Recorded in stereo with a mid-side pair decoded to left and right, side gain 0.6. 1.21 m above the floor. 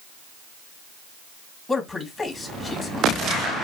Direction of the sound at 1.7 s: 20° left.